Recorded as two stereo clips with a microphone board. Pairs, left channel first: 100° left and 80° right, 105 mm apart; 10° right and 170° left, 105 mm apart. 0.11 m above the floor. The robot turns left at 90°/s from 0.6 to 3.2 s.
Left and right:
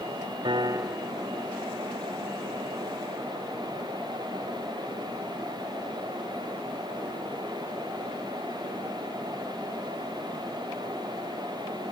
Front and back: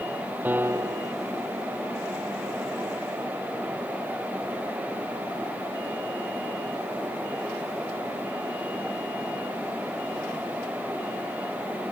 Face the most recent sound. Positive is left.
turn(degrees=10)